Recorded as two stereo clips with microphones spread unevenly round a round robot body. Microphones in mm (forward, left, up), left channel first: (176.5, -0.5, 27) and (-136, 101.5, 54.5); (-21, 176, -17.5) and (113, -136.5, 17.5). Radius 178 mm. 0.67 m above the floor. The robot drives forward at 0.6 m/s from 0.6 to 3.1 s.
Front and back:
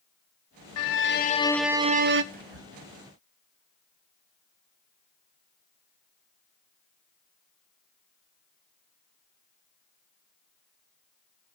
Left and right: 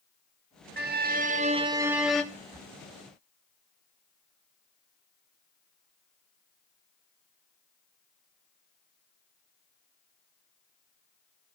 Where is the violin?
5° right, 0.7 m; by 2.2 s 170° right, 0.6 m.